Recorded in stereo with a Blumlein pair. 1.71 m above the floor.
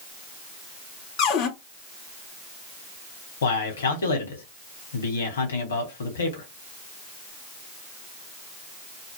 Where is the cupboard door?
40° left, 0.6 m.